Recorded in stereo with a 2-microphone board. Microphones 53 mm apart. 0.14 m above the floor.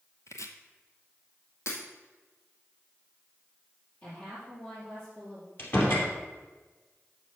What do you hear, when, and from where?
0.3 s chopping: 80° left, 0.8 m
1.7 s breaking glass: 65° left (ahead or behind), 2 m
4.0 s a woman speaking: 45° left (ahead or behind), 3.5 m
5.6 s a door slam: 45° left (ahead or behind), 2.5 m